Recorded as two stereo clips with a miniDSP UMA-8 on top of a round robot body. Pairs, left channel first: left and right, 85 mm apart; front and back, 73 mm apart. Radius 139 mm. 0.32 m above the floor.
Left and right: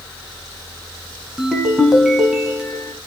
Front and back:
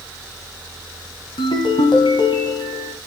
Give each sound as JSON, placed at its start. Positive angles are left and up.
{"t": 1.4, "sound": "a ringtone", "azimuth_deg": -5, "distance_m": 2.0}